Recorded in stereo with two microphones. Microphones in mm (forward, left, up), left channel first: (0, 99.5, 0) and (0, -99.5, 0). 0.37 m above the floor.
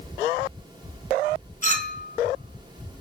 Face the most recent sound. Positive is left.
turn(degrees=-40)  # may be behind; listen again after turning